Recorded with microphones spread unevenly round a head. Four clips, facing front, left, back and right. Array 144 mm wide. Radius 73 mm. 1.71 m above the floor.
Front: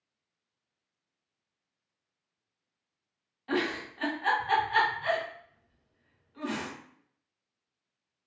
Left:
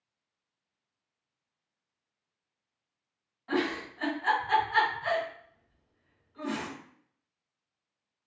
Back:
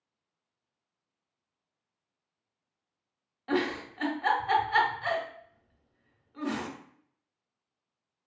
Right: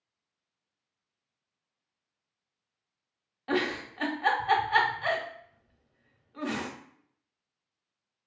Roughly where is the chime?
I don't hear a chime.